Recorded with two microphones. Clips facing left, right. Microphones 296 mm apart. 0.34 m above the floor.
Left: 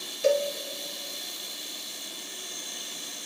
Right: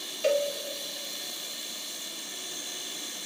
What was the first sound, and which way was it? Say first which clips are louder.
A cowbell: left 2 dB; 50° left (ahead or behind).